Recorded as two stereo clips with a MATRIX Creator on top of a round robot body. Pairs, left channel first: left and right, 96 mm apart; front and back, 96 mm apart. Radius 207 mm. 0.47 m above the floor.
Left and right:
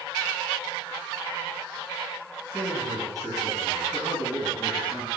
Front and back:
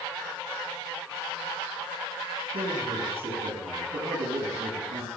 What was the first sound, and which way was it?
A man speaking, straight behind.